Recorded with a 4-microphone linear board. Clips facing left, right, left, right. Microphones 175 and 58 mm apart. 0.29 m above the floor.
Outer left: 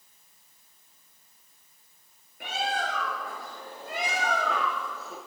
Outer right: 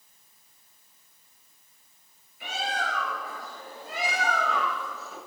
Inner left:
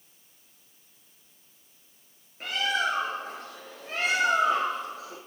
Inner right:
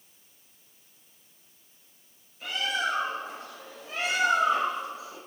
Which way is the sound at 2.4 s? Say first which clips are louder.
Outer left 1 dB, inner left 2 dB; 55° left (ahead or behind).